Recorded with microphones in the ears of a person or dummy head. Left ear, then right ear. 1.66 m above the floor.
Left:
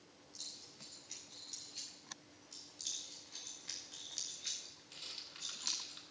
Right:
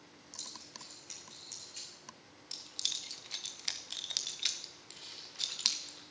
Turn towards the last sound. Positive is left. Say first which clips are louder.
# left 1 dB
turn(degrees=20)  # may be behind; listen again after turning